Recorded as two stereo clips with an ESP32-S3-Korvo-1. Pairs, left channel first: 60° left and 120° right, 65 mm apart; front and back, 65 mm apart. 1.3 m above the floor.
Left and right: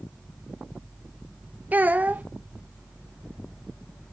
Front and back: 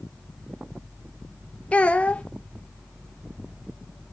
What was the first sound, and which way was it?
A child speaking, 65° right.